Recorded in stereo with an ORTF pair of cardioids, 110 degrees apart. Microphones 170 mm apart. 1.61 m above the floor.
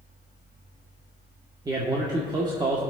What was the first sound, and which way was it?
A fan, 65° right.